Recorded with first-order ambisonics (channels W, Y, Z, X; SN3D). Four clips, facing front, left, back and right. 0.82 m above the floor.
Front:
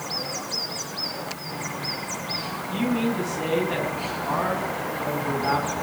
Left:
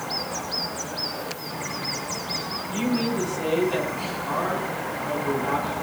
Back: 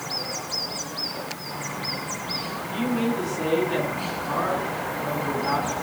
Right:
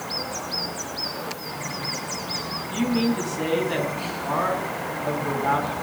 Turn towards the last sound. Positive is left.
turn(degrees=-65)